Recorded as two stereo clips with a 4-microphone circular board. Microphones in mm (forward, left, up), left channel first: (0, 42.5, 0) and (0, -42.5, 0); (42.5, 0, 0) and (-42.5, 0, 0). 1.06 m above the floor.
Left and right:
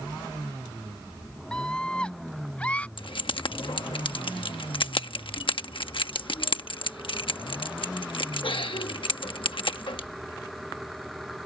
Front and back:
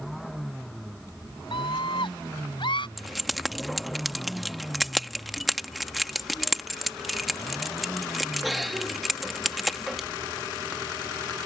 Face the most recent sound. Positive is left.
turn(degrees=90)